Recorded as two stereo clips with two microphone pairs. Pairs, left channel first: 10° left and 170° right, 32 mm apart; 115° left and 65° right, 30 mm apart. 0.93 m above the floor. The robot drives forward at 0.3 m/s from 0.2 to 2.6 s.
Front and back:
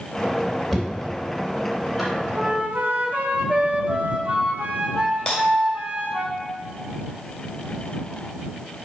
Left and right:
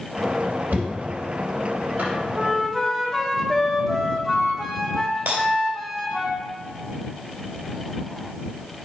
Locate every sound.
0.7 s knocking: 75° right, 3 m; by 2.1 s 85° right, 3 m
2.4 s a flute: 155° right, 1.1 m; by 6.3 s 160° right, 1.1 m
5.3 s breaking glass: 55° right, 2.5 m